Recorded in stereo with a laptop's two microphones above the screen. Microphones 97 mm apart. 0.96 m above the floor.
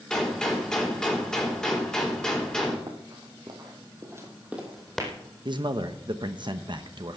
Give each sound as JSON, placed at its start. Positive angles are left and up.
{"t": 0.1, "sound": "a gunshot", "side_deg": 10, "distance_m": 3.5}
{"t": 2.9, "sound": "running footsteps", "side_deg": -65, "distance_m": 2.5}
{"t": 5.5, "sound": "a man speaking", "side_deg": -55, "distance_m": 0.9}